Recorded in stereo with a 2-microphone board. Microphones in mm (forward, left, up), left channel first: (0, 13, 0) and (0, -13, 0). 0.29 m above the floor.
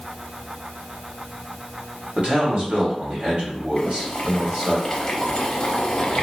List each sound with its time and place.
2.2 s a man speaking: 40° right (ahead or behind), 1.8 m
3.8 s boiling: 35° left (ahead or behind), 0.7 m